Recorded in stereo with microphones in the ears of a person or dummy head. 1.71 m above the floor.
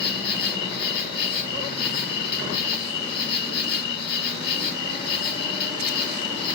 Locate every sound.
0.0 s an insect: 55° left (ahead or behind), 1.2 m